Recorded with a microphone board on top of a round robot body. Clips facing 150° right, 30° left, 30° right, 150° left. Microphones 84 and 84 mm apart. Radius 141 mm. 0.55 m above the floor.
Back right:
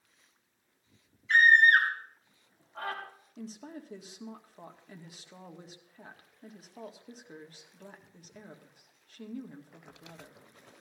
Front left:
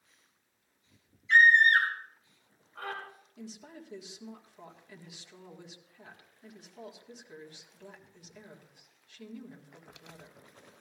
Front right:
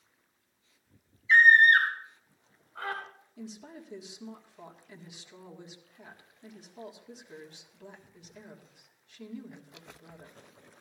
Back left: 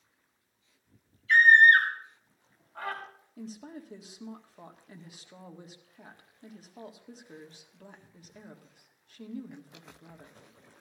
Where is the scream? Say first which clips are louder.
Even, back left 1 dB; 175° left, 4 m; by 3.0 s straight behind, 5 m.